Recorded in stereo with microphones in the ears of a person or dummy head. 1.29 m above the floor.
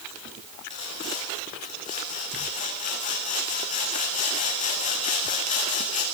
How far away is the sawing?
About 10 m.